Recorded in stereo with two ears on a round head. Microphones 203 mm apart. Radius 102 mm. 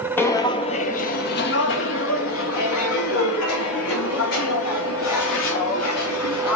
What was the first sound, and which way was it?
Footsteps, 10° left (ahead or behind).